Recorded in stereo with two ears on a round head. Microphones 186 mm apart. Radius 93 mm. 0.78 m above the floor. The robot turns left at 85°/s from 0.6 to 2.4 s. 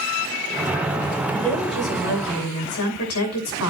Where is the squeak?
I don't hear a squeak.